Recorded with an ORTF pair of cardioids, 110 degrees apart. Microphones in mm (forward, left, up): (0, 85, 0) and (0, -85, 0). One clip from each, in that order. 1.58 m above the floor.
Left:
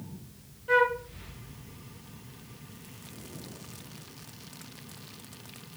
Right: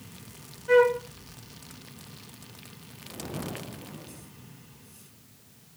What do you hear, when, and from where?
0.7 s a flute: 10° right, 2 m